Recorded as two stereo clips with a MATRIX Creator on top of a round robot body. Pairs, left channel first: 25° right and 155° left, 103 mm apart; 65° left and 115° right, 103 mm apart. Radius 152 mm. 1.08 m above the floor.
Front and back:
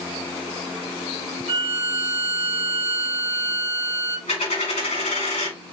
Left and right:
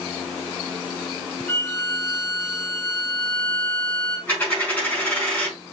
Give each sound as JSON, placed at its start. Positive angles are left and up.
{"t": 1.5, "sound": "a violin", "azimuth_deg": 145, "distance_m": 0.6}
{"t": 4.3, "sound": "a dropped coin", "azimuth_deg": -10, "distance_m": 4.0}